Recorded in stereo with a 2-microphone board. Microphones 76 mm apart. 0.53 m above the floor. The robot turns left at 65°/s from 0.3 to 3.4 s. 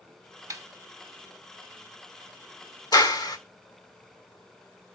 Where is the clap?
65° left (ahead or behind), 0.9 m; by 3.4 s 60° left (ahead or behind), 0.9 m.